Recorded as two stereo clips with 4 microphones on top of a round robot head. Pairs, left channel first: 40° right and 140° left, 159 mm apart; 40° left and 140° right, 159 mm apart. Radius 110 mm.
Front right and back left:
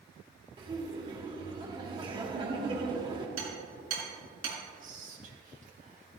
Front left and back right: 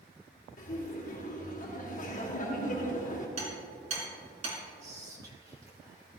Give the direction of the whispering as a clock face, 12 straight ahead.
7 o'clock.